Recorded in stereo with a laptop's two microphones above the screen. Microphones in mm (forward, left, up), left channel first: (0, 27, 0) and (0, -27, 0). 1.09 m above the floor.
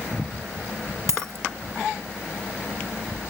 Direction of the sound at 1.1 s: 70° right (ahead or behind).